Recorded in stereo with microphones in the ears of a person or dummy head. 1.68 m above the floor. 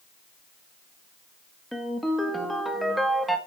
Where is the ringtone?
5° left (ahead or behind), 1.8 m.